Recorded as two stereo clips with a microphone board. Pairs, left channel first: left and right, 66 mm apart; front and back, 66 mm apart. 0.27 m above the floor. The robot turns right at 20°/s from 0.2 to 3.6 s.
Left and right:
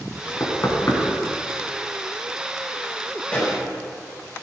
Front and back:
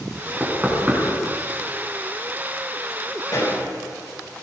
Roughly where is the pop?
Ahead left.